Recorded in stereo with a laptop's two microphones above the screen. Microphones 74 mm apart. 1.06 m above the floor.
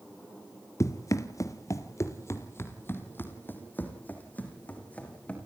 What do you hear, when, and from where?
0.8 s running footsteps: 45° left (ahead or behind), 1.4 m; by 5.4 s 15° left (ahead or behind), 4 m